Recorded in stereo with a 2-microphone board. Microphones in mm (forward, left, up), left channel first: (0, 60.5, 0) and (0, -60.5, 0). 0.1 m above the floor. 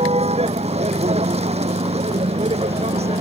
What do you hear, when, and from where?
0.0 s a vehicle: 60° right (ahead or behind)